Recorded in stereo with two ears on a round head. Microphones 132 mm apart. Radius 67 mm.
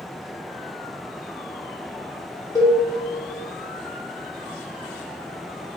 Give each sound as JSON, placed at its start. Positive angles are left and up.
{"t": 2.5, "sound": "a cowbell", "side_deg": 20, "distance_m": 0.8}